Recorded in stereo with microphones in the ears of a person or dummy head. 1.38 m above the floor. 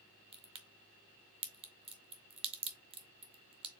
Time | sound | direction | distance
0.3 | a crack | 30° right (ahead or behind) | 0.7 m